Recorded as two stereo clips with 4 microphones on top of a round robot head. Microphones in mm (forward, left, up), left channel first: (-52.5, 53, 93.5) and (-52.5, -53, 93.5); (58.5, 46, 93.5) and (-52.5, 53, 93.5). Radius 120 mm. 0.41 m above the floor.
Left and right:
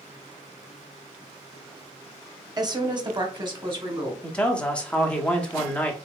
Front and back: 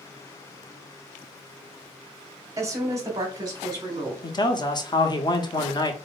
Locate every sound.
2.6 s a woman speaking: 130° right, 1.1 m
4.2 s a man speaking: 15° left, 1.0 m